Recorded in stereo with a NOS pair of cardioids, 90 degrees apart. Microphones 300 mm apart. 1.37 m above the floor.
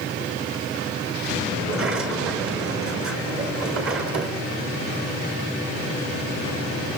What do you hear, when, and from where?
1.6 s a sliding door: 45° right, 4.5 m